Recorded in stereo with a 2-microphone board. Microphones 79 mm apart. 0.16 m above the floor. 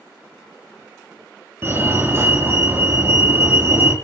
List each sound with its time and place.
1.6 s a fire alarm: 25° right (ahead or behind), 3 m